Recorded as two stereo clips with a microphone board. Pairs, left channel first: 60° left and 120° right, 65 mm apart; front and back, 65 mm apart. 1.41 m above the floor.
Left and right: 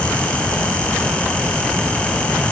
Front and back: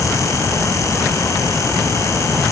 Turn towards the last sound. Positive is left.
No sound to turn to.